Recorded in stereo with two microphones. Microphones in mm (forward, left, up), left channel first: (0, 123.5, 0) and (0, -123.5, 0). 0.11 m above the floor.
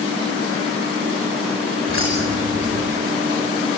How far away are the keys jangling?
About 7 m.